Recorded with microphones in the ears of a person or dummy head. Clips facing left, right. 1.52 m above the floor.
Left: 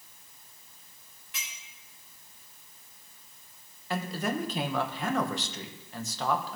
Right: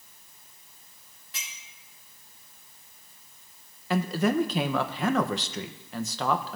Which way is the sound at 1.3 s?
30° right (ahead or behind).